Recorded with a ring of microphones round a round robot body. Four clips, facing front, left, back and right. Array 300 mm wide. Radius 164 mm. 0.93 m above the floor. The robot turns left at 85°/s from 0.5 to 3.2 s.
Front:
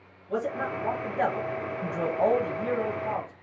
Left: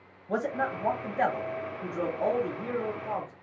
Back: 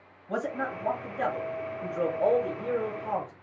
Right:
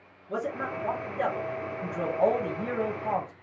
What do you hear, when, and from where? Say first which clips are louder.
0.3 s a man speaking: left 2 dB, front 2 dB; 105° left, 1.3 m; by 3.3 s 125° right, 1.3 m